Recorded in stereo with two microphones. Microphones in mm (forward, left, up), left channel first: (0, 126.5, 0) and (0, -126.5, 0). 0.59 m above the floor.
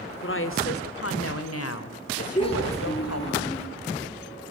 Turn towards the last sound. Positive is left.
turn(degrees=25)  # may be behind; listen again after turning